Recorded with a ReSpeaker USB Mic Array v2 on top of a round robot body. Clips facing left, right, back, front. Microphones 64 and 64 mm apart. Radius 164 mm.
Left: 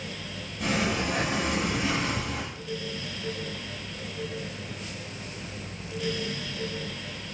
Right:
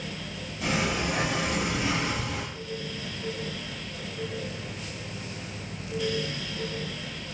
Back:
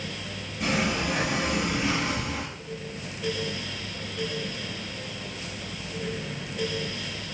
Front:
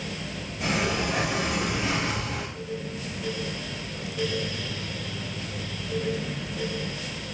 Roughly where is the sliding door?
Ahead left.